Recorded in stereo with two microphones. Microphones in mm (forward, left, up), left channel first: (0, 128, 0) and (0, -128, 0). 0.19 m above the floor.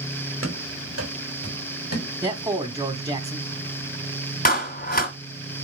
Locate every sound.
0.4 s running footsteps: 55° right (ahead or behind), 4 m; by 2.1 s 70° right (ahead or behind), 4 m
2.2 s a man speaking: 15° right (ahead or behind), 1.0 m
4.5 s a clap: 35° left (ahead or behind), 1.5 m